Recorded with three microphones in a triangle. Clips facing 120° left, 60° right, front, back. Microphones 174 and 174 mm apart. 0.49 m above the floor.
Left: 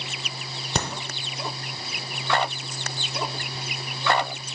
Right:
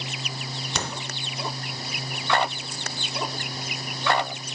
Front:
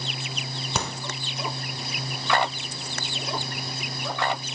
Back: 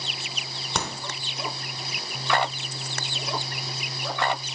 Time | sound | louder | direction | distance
0.8 | a crack | left 4 dB, even | 85° left | 0.8 m